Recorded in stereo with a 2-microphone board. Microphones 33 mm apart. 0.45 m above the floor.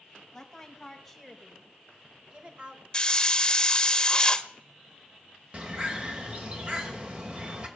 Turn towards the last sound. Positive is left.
turn(degrees=-30)  # may be behind; listen again after turning